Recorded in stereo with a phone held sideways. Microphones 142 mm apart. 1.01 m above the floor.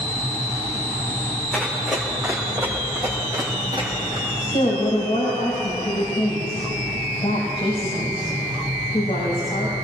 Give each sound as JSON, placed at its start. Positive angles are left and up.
{"t": 1.5, "sound": "running footsteps", "side_deg": 0, "distance_m": 4.0}
{"t": 4.4, "sound": "a woman speaking", "side_deg": 45, "distance_m": 7.0}